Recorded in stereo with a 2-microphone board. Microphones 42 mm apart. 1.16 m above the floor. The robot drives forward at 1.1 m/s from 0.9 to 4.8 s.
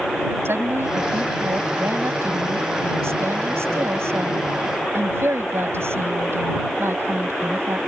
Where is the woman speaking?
65° right (ahead or behind); by 7.8 s 80° right.